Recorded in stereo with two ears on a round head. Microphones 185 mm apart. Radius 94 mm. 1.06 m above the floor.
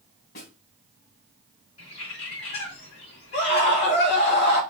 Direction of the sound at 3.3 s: 55° left (ahead or behind).